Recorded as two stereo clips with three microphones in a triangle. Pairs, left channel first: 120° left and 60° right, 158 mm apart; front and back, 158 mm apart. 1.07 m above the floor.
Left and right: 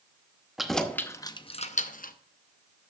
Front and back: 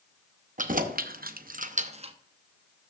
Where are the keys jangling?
145° right, 0.8 m; by 2.1 s 130° left, 0.7 m.